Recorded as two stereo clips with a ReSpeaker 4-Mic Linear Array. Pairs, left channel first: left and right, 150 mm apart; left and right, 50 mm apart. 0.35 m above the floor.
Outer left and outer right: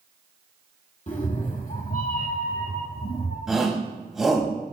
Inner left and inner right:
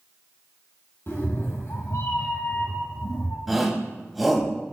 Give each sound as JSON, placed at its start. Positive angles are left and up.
{"t": 1.1, "sound": "a cat meowing", "side_deg": 50, "distance_m": 1.6}
{"t": 3.5, "sound": "a shout", "side_deg": -5, "distance_m": 2.5}